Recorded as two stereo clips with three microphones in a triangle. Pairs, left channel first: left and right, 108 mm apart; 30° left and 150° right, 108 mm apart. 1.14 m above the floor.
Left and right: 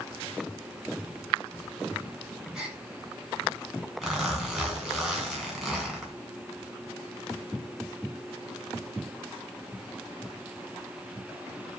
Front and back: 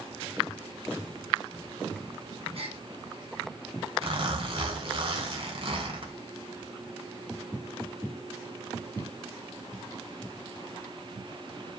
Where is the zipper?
175° right, 2.5 m.